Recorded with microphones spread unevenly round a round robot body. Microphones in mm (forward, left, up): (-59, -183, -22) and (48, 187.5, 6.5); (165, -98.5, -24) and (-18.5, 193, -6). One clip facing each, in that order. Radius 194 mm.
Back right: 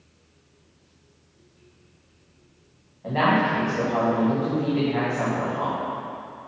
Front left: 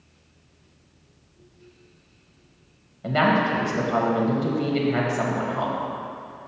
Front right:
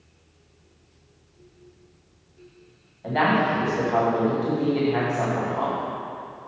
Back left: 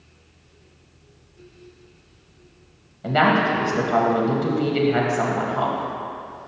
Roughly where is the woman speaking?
Left.